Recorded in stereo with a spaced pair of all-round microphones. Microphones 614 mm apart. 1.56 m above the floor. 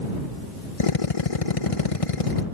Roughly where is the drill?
Left.